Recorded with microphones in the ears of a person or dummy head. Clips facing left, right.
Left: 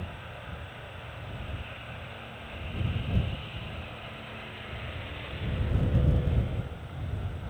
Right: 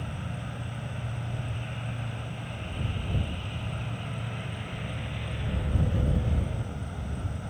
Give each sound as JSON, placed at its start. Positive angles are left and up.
{"t": 0.0, "sound": "an insect", "side_deg": -60}